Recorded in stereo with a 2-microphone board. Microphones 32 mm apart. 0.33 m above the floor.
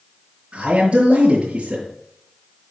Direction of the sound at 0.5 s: 40° right (ahead or behind).